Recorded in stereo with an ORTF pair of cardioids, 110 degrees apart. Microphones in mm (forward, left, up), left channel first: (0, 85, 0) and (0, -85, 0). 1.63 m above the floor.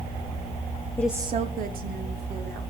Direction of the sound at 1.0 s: 15° left.